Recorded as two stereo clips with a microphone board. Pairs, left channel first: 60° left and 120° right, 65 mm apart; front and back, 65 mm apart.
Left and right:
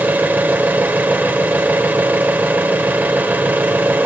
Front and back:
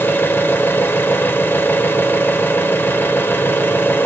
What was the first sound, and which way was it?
An engine running, 60° right.